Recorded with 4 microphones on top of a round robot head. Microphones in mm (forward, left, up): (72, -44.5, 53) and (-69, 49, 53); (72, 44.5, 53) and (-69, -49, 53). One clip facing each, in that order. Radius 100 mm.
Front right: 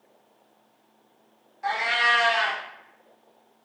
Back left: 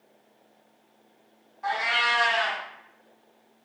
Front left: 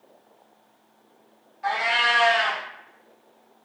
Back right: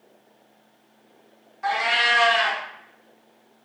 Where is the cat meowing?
110° right, 0.8 m.